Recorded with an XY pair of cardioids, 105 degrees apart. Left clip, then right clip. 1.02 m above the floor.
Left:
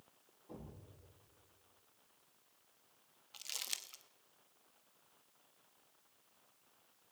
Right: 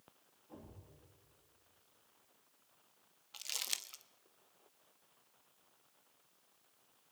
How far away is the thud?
About 10 m.